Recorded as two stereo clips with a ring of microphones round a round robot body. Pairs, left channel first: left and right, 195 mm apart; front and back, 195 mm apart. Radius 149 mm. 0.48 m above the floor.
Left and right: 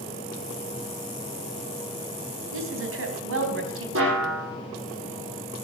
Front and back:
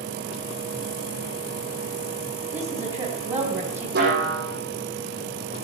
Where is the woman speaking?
100° right, 3.5 m.